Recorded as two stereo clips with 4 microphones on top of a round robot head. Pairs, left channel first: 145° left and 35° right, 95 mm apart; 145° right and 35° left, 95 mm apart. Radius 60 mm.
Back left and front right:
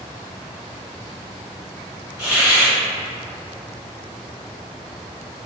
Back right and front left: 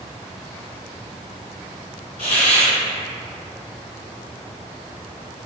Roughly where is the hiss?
Behind right.